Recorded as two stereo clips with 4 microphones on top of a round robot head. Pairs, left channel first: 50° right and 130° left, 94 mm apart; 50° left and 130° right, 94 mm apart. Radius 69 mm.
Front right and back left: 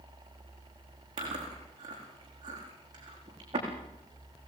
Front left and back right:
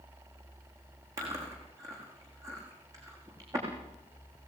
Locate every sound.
1.2 s chewing: 175° left, 8 m